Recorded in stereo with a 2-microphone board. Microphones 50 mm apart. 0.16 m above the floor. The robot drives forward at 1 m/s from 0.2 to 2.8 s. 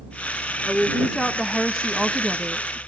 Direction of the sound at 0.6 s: Centre (ahead or behind).